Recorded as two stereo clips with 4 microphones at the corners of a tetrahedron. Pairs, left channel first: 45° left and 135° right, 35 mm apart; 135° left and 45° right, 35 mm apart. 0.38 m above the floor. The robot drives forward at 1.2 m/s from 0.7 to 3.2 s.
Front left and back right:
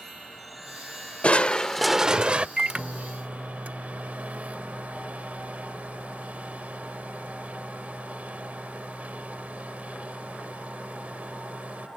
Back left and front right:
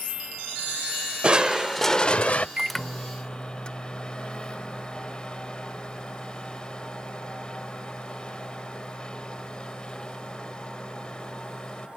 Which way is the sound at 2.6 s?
85° right.